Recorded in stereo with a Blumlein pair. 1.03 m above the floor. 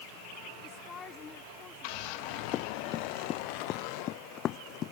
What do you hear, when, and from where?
0.6 s a woman speaking: 25° left
2.5 s running footsteps: 35° left